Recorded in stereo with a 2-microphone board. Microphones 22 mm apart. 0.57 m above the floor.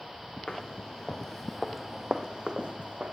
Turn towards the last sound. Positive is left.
turn(degrees=-60)  # may be behind; listen again after turning